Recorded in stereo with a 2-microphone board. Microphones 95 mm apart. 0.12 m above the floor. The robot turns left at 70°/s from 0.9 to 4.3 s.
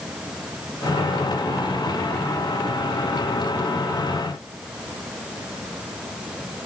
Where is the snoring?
I don't hear snoring.